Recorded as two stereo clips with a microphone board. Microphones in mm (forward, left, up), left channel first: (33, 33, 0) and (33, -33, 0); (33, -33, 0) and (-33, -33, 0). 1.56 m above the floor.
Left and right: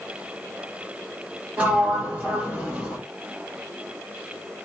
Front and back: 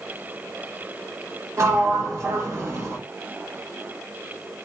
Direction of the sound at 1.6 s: 155° right.